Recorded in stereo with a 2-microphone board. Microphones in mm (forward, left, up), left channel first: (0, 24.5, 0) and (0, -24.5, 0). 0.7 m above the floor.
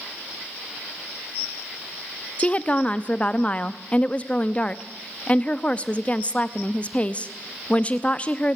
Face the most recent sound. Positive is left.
turn(degrees=25)  # may be behind; listen again after turning